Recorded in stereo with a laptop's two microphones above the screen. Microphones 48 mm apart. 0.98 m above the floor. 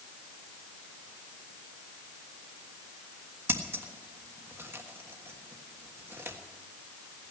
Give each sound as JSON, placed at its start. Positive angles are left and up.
{"t": 3.5, "sound": "scissors", "side_deg": -60, "distance_m": 1.4}